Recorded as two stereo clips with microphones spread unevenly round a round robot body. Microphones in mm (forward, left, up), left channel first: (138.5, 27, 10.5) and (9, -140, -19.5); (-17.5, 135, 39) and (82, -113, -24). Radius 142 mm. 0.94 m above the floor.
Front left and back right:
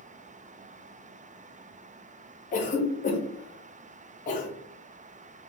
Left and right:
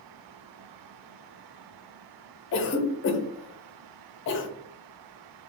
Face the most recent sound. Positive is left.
turn(degrees=85)